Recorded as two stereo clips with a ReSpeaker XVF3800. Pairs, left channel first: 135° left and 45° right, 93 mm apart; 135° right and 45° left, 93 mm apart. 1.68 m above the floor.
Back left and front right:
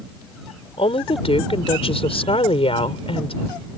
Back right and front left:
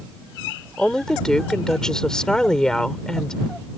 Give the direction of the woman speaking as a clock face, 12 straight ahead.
7 o'clock.